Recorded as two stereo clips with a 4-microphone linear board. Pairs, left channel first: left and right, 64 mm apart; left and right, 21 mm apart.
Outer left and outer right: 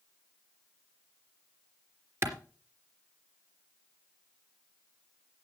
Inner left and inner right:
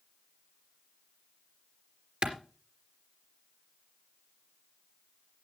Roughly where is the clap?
Right.